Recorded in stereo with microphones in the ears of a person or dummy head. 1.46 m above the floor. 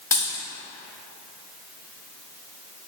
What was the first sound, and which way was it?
A dropped coin, 20° left (ahead or behind).